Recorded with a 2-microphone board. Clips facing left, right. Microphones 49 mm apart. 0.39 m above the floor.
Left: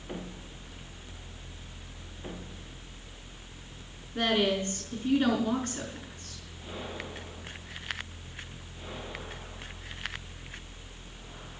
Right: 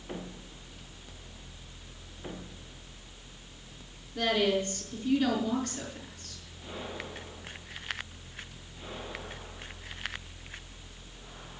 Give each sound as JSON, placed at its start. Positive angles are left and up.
{"t": 4.2, "sound": "a woman speaking", "side_deg": 35, "distance_m": 4.5}